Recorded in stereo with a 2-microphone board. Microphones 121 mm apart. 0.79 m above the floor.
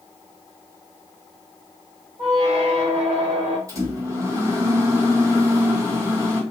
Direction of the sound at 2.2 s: 80° right.